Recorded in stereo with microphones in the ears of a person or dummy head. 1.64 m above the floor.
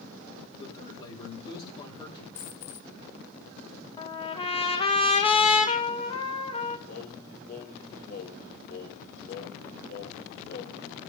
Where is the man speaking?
25° left (ahead or behind), 7.5 m.